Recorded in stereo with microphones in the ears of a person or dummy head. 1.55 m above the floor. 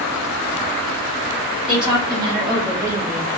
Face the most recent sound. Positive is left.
turn(degrees=-10)  # may be behind; listen again after turning